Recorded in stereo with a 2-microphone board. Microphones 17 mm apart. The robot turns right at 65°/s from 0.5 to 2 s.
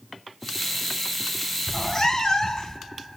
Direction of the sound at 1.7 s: 35° left (ahead or behind).